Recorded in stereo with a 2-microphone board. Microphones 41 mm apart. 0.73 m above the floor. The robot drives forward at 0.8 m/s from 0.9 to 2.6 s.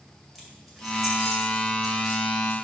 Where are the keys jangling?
Centre (ahead or behind), 2 m.